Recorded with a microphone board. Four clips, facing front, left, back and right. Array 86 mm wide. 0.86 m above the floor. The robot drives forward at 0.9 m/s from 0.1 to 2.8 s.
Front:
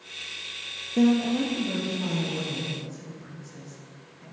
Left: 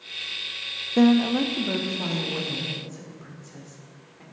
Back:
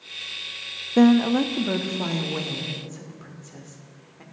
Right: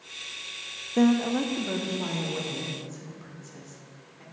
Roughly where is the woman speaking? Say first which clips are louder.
Left 4 dB, back 5 dB; behind.